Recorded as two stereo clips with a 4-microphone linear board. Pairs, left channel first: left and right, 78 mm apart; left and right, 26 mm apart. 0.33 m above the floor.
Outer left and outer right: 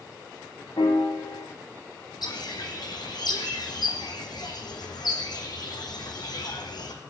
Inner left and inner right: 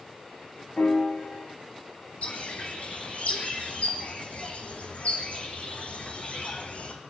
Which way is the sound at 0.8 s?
75° left (ahead or behind).